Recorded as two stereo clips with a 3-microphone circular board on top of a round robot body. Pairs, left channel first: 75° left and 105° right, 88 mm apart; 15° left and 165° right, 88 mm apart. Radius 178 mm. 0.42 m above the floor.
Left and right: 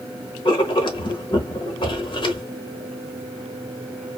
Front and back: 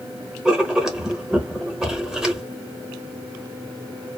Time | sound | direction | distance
0.5 | writing | 110° left | 0.9 m